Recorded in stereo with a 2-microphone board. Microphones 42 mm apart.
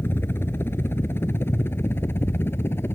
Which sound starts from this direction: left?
A helicopter, at 0.0 s.